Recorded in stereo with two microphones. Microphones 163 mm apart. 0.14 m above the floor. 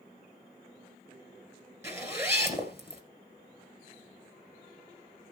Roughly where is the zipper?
Centre.